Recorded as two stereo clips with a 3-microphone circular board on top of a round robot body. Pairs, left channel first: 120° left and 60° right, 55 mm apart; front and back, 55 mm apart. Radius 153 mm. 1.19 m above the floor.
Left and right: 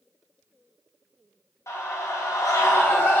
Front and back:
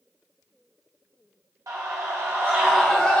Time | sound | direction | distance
1.7 | a scream | 155° left | 1.0 m